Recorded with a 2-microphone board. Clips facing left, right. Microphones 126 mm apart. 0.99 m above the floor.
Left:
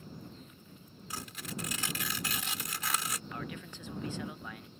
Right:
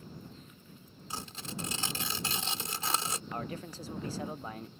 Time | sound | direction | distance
1.1 | tearing paper | 30° right (ahead or behind) | ?
3.3 | a man speaking | 35° right (ahead or behind) | ?